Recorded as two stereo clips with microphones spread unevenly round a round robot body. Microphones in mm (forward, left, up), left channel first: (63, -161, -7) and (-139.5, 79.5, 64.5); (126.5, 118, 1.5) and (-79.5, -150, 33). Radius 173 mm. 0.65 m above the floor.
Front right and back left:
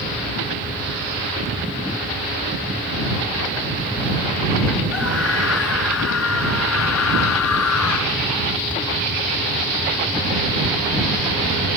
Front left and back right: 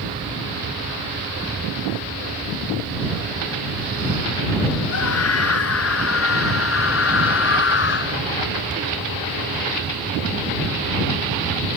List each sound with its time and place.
4.9 s a scream: 5° left; by 8.2 s 5° right